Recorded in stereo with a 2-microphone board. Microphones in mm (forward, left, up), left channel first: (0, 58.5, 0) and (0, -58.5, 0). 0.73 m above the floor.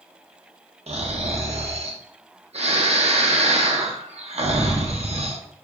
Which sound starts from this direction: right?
Snoring, at 0.9 s.